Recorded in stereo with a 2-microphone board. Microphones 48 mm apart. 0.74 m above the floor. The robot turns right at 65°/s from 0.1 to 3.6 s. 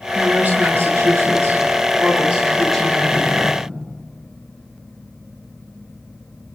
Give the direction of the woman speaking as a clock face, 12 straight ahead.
6 o'clock.